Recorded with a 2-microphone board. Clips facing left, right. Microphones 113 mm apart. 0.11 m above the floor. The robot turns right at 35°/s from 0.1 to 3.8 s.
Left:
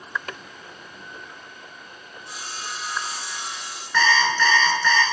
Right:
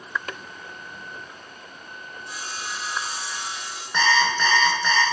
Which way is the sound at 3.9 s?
20° right (ahead or behind).